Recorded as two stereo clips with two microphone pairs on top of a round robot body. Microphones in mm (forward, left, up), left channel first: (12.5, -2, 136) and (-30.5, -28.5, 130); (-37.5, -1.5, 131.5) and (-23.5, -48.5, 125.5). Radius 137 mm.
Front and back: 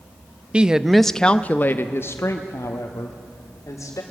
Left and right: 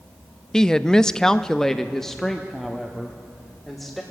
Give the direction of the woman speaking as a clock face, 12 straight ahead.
6 o'clock.